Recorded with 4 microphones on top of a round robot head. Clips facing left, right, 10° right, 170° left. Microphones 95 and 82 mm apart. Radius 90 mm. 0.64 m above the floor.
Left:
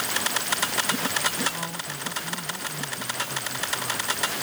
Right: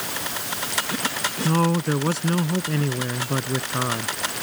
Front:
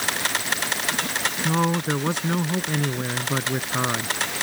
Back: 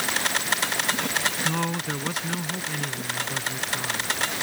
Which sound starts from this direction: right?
A man speaking, at 1.4 s.